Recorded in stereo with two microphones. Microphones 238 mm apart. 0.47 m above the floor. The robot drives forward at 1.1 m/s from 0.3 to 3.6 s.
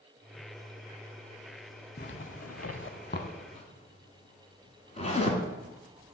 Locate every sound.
2.0 s a zipper: 45° left (ahead or behind), 0.9 m; by 5.4 s 25° left (ahead or behind), 1.3 m